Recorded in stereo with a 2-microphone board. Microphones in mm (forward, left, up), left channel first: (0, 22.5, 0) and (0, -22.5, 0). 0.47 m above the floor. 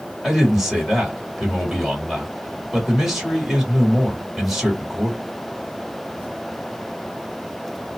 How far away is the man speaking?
About 1.7 m.